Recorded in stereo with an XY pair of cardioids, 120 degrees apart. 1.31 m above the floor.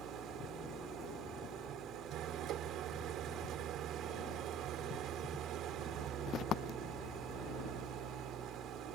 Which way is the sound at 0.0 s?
70° right.